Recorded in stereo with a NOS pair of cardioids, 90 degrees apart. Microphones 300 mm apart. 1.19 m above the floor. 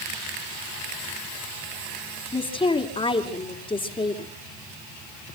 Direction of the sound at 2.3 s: 15° left.